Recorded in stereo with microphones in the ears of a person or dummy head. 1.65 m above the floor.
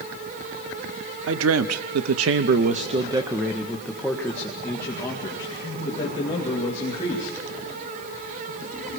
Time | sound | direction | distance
1.3 | a man speaking | 70° right (ahead or behind) | 1.3 m